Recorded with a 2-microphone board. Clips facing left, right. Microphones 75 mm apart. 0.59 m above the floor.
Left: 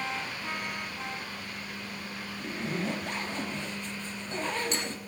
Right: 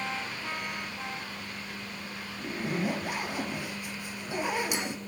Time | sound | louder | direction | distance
2.4 | a zipper | right 2 dB | 10° right (ahead or behind) | 1.3 m